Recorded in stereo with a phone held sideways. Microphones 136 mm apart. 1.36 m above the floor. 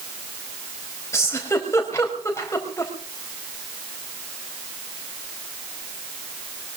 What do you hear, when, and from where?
1.1 s a giggle: 20° left (ahead or behind), 5 m